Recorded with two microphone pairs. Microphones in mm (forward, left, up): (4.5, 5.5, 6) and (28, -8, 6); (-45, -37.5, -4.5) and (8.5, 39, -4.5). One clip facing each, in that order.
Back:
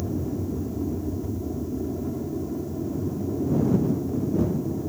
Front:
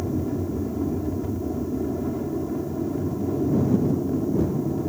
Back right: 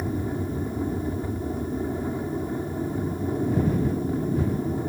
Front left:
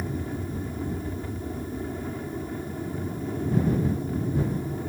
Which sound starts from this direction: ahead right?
An aircraft, at 0.0 s.